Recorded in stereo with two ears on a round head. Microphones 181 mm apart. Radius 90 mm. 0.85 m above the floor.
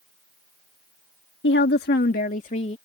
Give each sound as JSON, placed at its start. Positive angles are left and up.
{"t": 1.4, "sound": "a woman speaking", "side_deg": 60}